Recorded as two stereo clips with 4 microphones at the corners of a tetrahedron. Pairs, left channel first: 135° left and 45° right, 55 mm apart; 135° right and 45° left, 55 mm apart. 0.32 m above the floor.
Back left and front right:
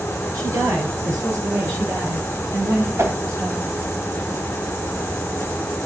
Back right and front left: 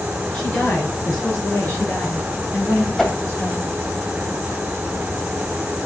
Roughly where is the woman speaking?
Ahead right.